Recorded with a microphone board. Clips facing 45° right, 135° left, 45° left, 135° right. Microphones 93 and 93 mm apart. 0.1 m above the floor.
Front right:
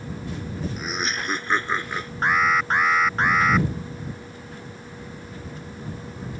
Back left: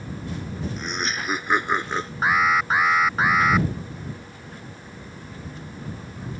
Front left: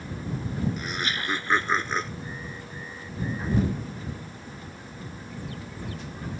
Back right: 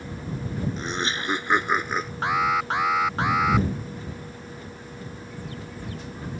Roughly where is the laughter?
Behind right.